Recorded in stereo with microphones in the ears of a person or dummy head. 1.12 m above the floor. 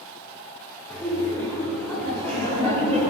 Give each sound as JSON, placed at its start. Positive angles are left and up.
{"t": 0.9, "sound": "laughter", "side_deg": 5, "distance_m": 3.0}